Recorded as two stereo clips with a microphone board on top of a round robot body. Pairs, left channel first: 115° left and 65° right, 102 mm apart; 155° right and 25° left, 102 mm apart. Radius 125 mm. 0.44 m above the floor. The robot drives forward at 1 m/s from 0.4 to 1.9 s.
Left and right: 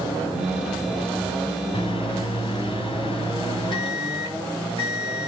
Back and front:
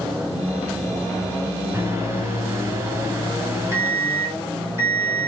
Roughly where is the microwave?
Left.